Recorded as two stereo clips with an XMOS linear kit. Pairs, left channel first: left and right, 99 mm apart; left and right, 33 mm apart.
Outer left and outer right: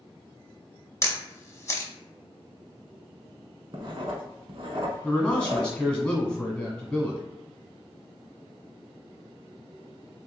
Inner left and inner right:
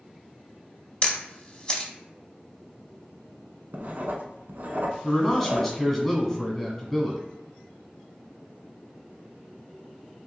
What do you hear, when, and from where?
1.0 s a camera shutter: 30° left (ahead or behind), 0.6 m
3.7 s writing: 60° right (ahead or behind), 0.6 m
5.0 s a man speaking: 10° left (ahead or behind), 1.5 m